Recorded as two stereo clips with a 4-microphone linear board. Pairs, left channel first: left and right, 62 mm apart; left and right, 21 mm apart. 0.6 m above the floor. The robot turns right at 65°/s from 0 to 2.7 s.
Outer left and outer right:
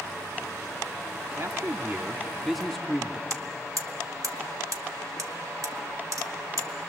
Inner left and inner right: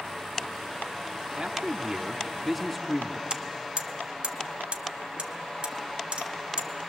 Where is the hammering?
60° right (ahead or behind), 1.0 m.